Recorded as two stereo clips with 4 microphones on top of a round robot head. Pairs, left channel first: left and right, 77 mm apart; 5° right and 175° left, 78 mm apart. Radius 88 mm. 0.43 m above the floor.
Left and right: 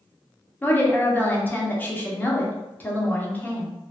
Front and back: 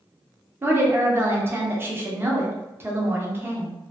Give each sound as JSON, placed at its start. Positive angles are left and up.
{"t": 0.6, "sound": "a woman speaking", "azimuth_deg": 140, "distance_m": 1.0}